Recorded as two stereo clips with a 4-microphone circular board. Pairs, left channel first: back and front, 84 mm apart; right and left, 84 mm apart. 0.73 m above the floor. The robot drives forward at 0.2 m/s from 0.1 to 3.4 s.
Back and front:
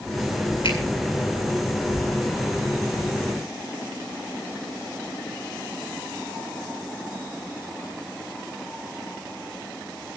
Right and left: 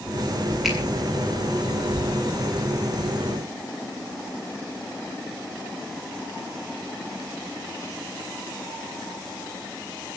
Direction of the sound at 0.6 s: 175° left.